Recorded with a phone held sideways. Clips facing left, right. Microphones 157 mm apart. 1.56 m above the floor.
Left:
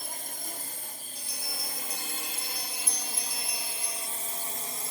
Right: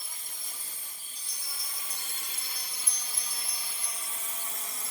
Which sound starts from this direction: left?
A drone, at 0.0 s.